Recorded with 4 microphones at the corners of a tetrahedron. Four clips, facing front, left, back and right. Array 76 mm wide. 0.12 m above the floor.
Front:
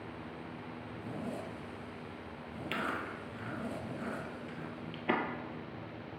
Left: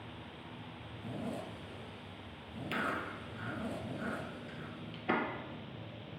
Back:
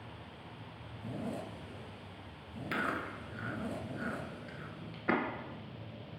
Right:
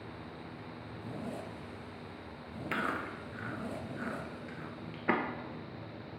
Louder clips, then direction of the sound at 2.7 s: Right 2 dB, back 1 dB; 115° right.